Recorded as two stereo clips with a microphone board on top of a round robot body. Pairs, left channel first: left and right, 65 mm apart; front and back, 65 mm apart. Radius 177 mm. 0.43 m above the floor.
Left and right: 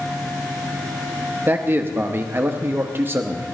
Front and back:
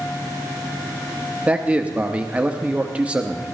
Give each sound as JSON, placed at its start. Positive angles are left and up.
{"t": 1.5, "sound": "a man speaking", "azimuth_deg": -120, "distance_m": 1.1}